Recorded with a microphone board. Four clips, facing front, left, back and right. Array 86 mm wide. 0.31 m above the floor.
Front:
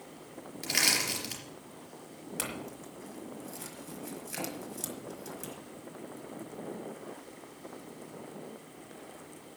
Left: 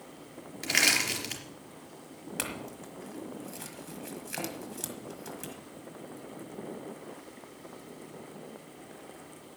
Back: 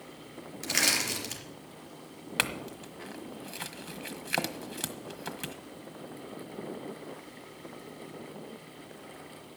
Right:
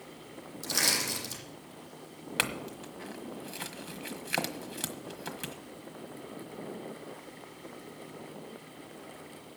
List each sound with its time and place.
0.6 s crushing: 95° left, 4 m
2.4 s a clink: 150° right, 1.4 m